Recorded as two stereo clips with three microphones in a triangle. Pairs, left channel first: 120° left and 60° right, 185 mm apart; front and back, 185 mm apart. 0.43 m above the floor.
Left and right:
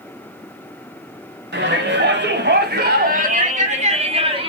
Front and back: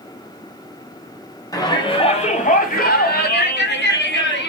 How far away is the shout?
About 2.5 m.